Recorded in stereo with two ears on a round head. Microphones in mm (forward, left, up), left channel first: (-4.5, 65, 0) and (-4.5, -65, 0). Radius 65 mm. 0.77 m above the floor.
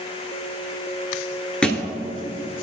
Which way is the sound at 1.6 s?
5° left (ahead or behind).